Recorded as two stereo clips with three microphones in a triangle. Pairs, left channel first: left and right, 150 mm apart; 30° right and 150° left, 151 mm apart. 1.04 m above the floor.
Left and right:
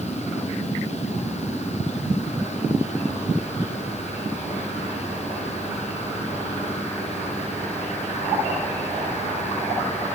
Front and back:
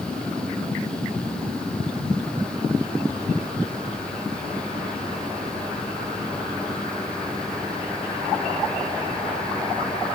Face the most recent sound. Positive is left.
No sound to turn to.